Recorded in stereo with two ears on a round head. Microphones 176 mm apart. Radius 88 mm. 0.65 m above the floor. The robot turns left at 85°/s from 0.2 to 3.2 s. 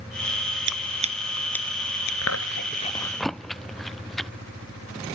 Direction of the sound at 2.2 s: 85° left.